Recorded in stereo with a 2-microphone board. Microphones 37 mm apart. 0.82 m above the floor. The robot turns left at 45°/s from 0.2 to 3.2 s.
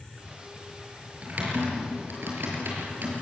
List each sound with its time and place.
1.2 s typing on a keyboard: 40° right (ahead or behind), 6 m; by 3.1 s 50° right (ahead or behind), 6 m